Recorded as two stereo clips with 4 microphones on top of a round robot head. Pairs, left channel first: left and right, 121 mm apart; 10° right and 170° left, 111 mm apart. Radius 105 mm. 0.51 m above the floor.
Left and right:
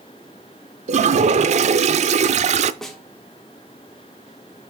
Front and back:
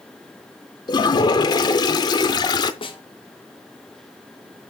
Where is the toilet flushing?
65° right, 0.5 m.